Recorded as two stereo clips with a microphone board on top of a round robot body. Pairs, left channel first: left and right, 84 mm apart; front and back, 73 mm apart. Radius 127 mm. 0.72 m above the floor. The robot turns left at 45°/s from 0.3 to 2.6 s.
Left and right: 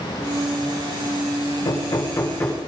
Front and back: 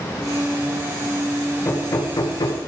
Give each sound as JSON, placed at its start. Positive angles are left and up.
{"t": 1.6, "sound": "hammering", "azimuth_deg": 60, "distance_m": 3.0}